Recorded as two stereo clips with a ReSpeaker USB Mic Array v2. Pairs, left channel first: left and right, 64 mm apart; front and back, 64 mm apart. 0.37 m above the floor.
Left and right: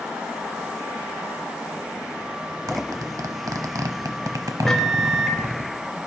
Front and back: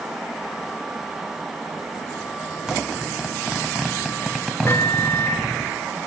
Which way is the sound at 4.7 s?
10° left.